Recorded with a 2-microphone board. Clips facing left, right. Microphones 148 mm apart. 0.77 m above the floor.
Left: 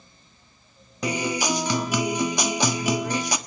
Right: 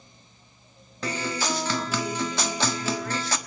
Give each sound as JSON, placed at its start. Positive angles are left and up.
{"t": 1.0, "sound": "a guitar", "side_deg": 15, "distance_m": 1.1}